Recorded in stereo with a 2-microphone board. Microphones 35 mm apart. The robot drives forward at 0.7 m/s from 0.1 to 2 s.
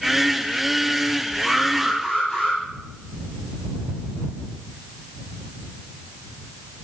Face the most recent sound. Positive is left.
turn(degrees=5)  # may be behind; listen again after turning